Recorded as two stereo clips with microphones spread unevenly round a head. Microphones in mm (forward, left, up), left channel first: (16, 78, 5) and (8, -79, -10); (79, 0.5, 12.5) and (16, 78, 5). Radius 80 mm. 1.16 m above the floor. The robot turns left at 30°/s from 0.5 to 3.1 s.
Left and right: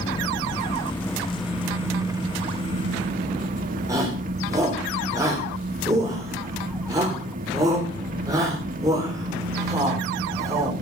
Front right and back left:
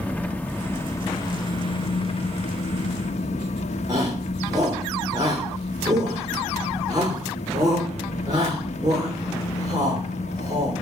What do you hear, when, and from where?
0.0 s an engine running: 25° left, 1.3 m; by 10.8 s 55° right, 1.3 m
3.9 s a shout: 165° right, 4 m